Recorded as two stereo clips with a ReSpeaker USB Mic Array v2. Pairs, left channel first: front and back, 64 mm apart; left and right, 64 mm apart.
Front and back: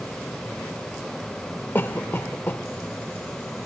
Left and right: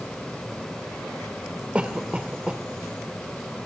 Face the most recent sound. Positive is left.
turn(degrees=-30)